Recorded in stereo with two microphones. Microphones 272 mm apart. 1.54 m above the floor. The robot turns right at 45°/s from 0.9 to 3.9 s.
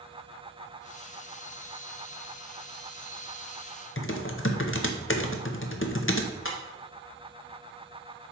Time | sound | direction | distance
4.0 | typing on a keyboard | 50° left (ahead or behind) | 0.7 m
6.5 | breaking glass | 50° left (ahead or behind) | 1.0 m